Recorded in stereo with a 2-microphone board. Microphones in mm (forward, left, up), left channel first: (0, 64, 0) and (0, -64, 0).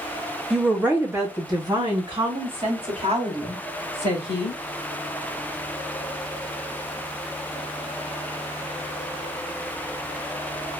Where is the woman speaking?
5° right (ahead or behind), 0.8 m; by 4.6 s 55° right (ahead or behind), 2.5 m.